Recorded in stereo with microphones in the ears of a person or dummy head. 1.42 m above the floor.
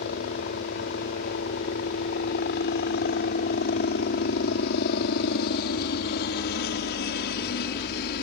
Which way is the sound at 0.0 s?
55° left (ahead or behind).